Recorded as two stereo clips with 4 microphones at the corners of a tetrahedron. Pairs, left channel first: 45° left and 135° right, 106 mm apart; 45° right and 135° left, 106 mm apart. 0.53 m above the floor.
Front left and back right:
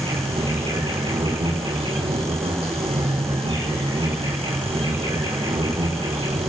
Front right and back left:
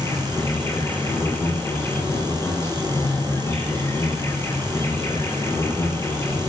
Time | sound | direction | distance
0.0 | an insect | 110° right | 5.5 m